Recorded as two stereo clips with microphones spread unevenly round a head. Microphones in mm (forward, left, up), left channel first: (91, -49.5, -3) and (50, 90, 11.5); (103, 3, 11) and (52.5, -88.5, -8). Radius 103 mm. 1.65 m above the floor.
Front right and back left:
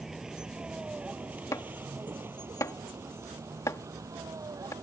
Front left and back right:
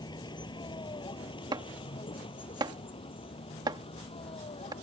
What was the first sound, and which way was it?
A vehicle, 20° left.